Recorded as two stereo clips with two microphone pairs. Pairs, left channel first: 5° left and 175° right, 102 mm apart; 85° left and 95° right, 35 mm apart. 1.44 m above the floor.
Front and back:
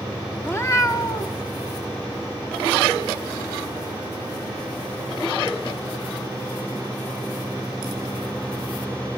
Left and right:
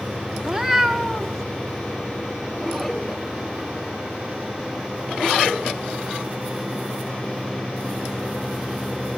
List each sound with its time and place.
0.4 s a cat meowing: 40° right, 0.9 m; by 1.4 s 10° left, 1.4 m